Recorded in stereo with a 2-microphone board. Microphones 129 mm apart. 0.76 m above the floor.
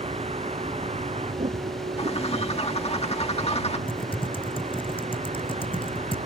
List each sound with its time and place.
0.0 s a vehicle: 55° right (ahead or behind); by 6.3 s 60° right (ahead or behind)
2.0 s a bird: 55° left (ahead or behind)
3.9 s typing on a keyboard: 45° left (ahead or behind)